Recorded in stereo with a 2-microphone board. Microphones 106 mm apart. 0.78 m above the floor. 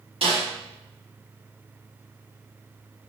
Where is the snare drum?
60° right (ahead or behind), 1.7 m.